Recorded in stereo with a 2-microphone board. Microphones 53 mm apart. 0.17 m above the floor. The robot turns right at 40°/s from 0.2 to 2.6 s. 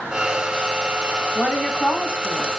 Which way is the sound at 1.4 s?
20° left (ahead or behind).